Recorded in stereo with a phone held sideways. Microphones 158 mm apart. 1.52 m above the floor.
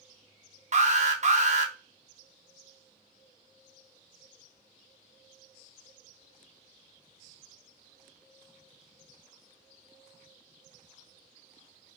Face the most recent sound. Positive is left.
turn(degrees=-50)  # may be behind; listen again after turning